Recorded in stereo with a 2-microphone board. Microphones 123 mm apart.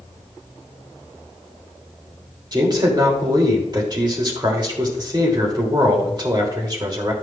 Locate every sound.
2.5 s a man speaking: 35° right (ahead or behind), 1.7 m